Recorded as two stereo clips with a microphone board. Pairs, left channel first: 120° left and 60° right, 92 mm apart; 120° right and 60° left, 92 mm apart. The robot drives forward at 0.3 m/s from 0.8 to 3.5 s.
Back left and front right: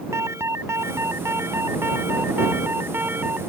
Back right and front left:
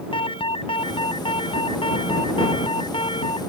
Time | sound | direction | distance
0.1 | an alarm | 120° right | ?